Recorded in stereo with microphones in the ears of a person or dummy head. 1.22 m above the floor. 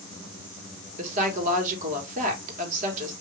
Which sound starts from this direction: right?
A woman speaking, at 1.0 s.